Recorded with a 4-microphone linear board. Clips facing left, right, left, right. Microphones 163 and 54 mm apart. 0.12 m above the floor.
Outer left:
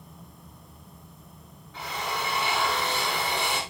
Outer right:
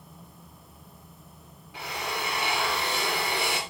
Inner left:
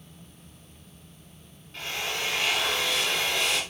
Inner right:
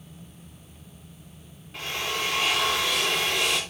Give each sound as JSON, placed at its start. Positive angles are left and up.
{"t": 1.7, "sound": "a drill", "side_deg": -15, "distance_m": 7.5}